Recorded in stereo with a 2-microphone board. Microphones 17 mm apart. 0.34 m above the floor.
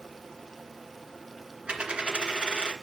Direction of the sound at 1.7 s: 80° right.